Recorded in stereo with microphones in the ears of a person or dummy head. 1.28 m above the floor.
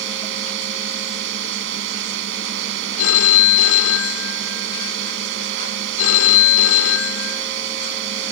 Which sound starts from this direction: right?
A drone, at 0.0 s.